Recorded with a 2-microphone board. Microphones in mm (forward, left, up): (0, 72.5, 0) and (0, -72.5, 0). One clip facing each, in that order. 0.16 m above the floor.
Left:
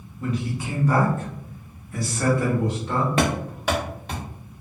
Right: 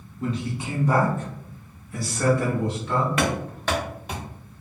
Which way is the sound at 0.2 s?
30° right (ahead or behind).